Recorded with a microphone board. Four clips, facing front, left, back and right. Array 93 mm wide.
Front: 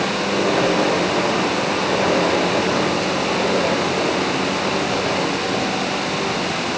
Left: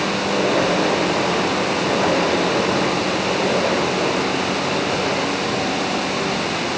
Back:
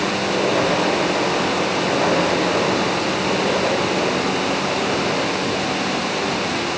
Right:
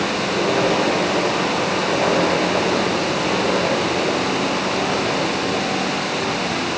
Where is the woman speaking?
No woman speaking in this recording.